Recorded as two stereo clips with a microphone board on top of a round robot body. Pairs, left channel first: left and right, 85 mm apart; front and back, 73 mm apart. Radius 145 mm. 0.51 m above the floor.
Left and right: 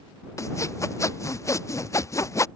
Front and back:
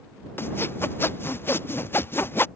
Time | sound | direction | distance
0.4 | sawing | 50° left | ?